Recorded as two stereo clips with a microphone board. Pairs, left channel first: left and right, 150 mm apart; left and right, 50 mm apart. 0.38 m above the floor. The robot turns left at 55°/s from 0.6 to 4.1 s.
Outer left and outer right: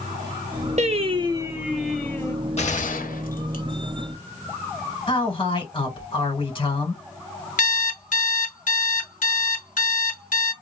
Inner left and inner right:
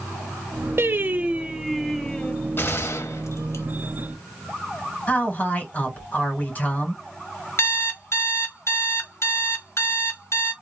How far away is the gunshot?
About 0.8 m.